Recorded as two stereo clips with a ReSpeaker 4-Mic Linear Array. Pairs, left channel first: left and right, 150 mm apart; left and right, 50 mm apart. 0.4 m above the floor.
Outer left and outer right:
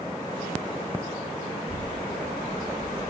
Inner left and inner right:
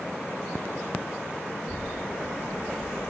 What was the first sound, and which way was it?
A child speaking, 35° left (ahead or behind).